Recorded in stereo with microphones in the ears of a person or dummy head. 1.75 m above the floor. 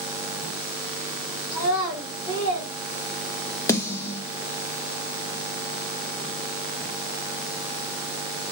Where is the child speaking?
50° left (ahead or behind), 2.5 m; by 2.7 s 45° left (ahead or behind), 3 m.